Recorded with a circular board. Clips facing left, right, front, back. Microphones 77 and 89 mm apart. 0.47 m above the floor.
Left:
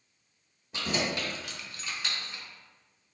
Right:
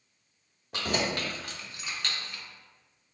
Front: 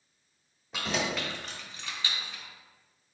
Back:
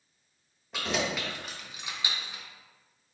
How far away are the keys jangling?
About 1.1 m.